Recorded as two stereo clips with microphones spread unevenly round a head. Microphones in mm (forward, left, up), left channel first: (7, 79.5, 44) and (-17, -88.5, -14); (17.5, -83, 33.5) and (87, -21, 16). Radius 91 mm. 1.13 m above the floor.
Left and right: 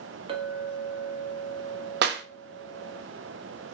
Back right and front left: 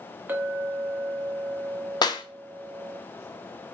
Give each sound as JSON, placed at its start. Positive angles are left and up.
{"t": 0.3, "sound": "a clink", "azimuth_deg": -30, "distance_m": 0.9}
{"t": 2.0, "sound": "a clap", "azimuth_deg": -95, "distance_m": 0.6}